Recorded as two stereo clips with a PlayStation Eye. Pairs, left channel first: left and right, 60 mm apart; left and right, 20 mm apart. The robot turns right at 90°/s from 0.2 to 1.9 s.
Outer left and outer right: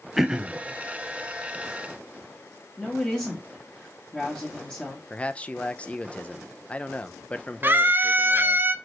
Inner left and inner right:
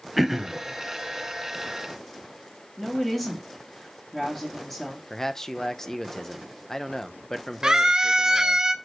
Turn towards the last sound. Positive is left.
turn(degrees=-35)  # may be behind; listen again after turning